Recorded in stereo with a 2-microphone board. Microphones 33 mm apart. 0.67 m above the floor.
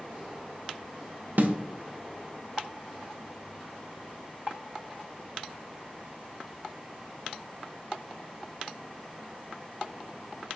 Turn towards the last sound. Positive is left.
turn(degrees=-65)  # may be behind; listen again after turning